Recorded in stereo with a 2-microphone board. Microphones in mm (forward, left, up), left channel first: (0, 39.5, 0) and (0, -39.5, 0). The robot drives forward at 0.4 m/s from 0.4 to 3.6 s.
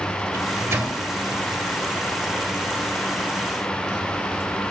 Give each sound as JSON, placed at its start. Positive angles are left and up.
{"t": 0.3, "sound": "a microwave", "side_deg": -35, "distance_m": 1.4}